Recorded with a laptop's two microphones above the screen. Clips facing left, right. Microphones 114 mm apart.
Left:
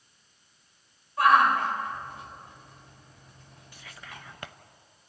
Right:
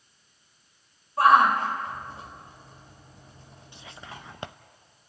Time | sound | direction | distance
1.2 | a shout | 30° right (ahead or behind) | 4.5 m
3.7 | whispering | 25° right (ahead or behind) | 0.5 m